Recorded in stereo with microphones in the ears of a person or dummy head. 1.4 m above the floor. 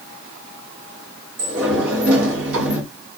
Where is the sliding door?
65° right (ahead or behind), 1.0 m.